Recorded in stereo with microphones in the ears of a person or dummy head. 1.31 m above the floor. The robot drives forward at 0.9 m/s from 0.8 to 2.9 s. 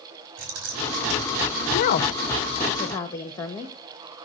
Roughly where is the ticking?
I don't hear ticking.